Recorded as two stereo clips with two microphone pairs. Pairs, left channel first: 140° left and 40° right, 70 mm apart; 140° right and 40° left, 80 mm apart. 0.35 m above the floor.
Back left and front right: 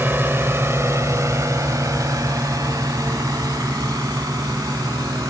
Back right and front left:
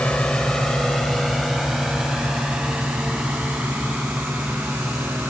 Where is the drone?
75° right; by 5.3 s 30° right.